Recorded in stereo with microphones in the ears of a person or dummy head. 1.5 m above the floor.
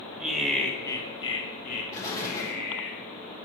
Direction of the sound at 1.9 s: 15° left (ahead or behind).